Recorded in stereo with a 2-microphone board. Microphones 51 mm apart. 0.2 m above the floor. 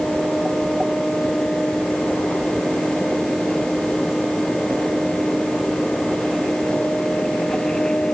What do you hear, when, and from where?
Only background noise.